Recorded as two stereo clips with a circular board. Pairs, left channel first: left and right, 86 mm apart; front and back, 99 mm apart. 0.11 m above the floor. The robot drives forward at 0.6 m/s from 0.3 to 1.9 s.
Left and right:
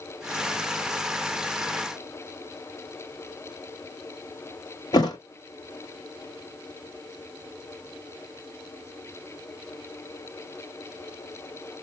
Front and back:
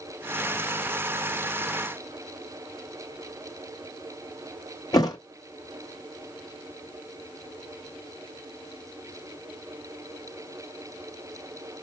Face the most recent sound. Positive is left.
turn(degrees=50)